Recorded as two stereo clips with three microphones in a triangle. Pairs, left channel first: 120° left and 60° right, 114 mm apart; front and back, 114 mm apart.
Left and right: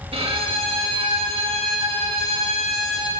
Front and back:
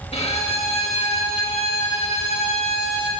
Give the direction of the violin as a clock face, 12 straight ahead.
1 o'clock.